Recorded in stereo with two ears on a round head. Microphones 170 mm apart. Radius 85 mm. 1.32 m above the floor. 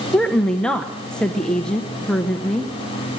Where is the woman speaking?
5° left (ahead or behind), 0.9 m.